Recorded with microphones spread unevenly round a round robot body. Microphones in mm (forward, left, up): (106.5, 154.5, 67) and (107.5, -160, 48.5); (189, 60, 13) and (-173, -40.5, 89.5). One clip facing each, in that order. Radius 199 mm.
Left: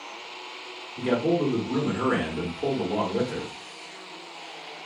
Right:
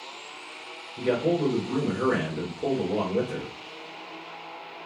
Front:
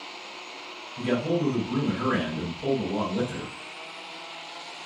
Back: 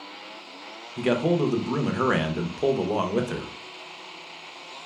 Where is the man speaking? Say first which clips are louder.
Left 1 dB, back 3 dB; 175° left, 0.7 m.